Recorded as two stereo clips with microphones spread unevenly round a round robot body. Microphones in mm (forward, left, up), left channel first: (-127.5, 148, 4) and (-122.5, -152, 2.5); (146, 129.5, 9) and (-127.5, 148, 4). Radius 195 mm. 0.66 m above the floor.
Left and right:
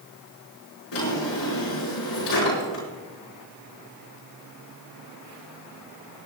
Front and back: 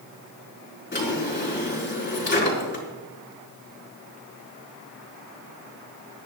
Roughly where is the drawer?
Ahead left.